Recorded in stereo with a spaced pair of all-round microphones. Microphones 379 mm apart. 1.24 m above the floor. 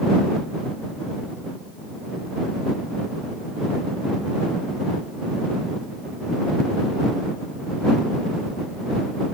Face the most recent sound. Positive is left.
No sound to turn to.